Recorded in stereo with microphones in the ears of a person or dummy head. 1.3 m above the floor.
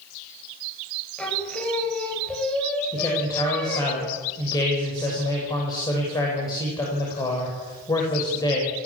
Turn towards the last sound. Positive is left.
turn(degrees=20)  # may be behind; listen again after turning